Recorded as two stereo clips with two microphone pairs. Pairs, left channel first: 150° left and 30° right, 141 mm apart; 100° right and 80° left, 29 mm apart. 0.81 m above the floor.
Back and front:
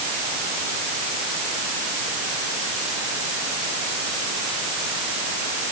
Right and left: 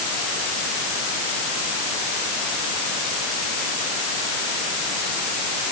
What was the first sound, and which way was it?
Only background noise.